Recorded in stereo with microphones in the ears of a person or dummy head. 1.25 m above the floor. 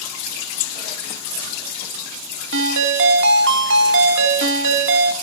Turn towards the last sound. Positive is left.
turn(degrees=-70)  # may be behind; listen again after turning